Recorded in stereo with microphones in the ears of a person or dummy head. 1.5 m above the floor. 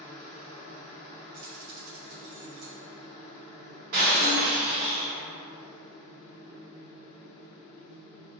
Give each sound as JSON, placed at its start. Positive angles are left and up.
{"t": 0.0, "sound": "a machine running", "side_deg": 45, "distance_m": 0.7}
{"t": 1.3, "sound": "keys jangling", "side_deg": -50, "distance_m": 0.8}
{"t": 3.9, "sound": "breaking glass", "side_deg": -45, "distance_m": 0.8}